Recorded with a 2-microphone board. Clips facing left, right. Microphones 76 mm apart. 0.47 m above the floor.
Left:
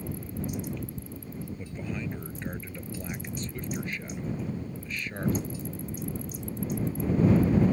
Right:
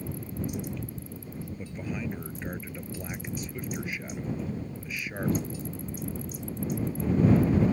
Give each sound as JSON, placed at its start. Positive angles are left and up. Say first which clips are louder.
{"t": 1.6, "sound": "a man speaking", "louder": "right 2 dB", "side_deg": -10}